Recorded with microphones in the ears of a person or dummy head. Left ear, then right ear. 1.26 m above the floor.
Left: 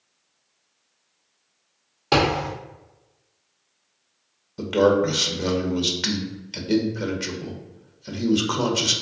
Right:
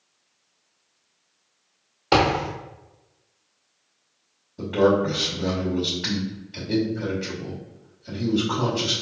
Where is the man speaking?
65° left (ahead or behind), 0.9 m.